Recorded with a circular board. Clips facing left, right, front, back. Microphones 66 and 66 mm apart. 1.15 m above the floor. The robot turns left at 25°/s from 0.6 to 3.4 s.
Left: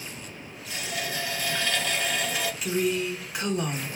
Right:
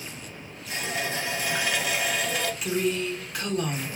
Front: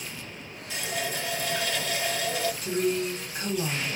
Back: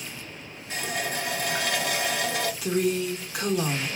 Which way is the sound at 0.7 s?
140° right.